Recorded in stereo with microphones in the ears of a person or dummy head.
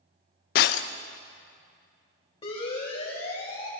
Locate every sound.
0.6 s breaking glass: 50° left (ahead or behind), 0.7 m
2.4 s a siren: 30° left (ahead or behind), 6.5 m; by 3.7 s 35° left (ahead or behind), 5 m